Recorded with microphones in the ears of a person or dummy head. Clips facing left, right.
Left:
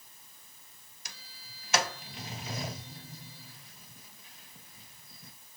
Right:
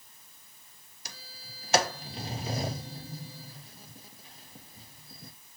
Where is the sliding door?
35° right (ahead or behind), 0.6 m.